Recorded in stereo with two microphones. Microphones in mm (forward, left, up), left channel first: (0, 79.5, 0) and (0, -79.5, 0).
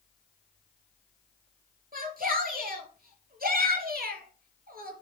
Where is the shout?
65° right (ahead or behind), 3.5 m.